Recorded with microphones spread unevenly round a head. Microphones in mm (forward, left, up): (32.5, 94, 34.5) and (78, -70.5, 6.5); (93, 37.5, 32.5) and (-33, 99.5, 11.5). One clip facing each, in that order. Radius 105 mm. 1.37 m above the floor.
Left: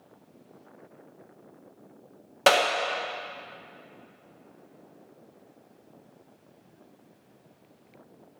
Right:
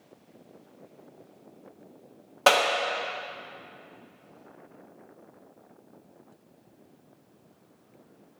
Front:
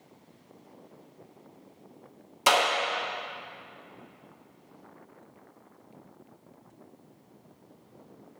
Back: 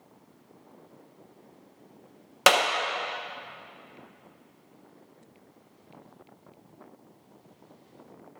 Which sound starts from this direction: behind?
A clap, at 2.5 s.